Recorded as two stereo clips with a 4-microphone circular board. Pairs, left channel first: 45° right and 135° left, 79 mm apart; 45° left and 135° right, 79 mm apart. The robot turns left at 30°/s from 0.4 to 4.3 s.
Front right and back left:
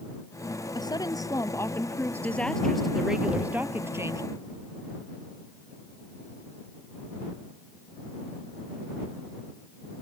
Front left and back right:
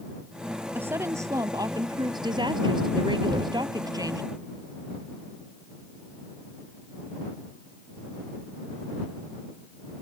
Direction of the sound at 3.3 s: 150° right.